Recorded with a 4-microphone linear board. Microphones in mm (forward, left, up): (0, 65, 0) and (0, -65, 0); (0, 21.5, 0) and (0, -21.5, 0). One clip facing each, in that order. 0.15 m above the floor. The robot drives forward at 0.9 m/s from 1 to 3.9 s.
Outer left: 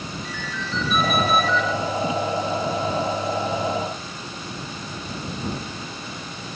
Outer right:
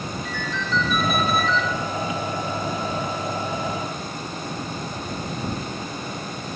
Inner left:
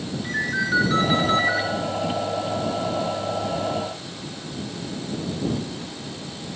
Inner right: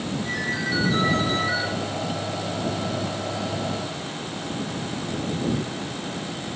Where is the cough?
I don't hear a cough.